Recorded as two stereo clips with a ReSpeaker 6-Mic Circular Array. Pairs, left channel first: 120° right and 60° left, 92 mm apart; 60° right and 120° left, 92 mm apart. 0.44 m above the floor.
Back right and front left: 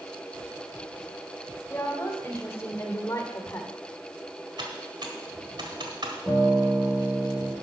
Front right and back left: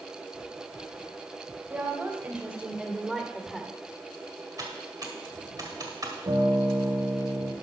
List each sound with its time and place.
1.7 s a woman speaking: straight behind, 2 m; by 3.7 s 145° right, 1.3 m
4.6 s typing on a keyboard: 80° left, 1.6 m
6.3 s a guitar: 150° left, 4.5 m